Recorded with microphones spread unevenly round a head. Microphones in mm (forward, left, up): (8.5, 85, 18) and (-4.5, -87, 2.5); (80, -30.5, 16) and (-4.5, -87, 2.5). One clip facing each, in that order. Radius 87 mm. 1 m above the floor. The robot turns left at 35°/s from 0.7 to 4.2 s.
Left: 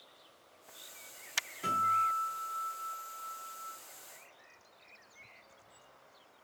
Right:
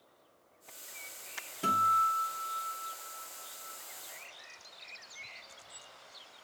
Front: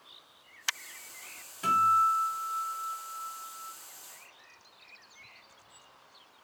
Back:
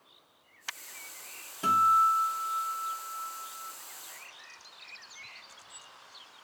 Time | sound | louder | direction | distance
1.6 | a guitar | right 3 dB, back 1 dB | 100° right | 1.7 m